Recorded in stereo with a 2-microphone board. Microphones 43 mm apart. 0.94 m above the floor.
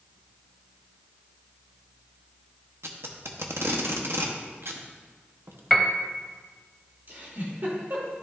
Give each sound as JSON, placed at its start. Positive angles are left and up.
{"t": 2.8, "sound": "tape being pulled", "side_deg": -70, "distance_m": 0.9}
{"t": 5.7, "sound": "a piano", "side_deg": 5, "distance_m": 0.8}
{"t": 7.1, "sound": "a giggle", "side_deg": -55, "distance_m": 2.5}